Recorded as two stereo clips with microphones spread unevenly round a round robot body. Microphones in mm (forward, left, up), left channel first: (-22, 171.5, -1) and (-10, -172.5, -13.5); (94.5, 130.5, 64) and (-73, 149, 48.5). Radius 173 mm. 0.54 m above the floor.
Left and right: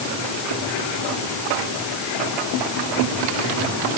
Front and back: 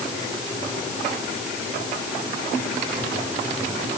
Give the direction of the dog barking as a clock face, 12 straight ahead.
I don't hear a dog barking.